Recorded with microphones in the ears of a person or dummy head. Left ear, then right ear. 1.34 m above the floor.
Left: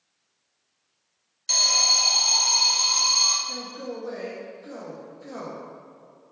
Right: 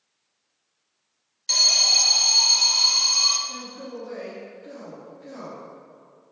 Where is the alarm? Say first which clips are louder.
Right 2 dB; 5° right (ahead or behind), 0.5 m.